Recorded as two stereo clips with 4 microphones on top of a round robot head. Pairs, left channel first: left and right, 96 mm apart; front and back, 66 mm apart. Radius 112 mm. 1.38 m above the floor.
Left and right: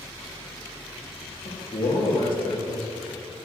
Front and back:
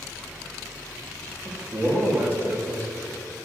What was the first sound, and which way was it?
A man speaking, 125° left.